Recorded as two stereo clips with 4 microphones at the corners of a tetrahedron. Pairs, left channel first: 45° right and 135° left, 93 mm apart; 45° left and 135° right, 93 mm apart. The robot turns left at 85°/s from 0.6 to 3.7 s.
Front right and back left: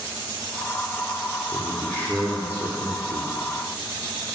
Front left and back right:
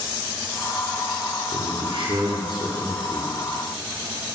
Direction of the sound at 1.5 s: 75° right.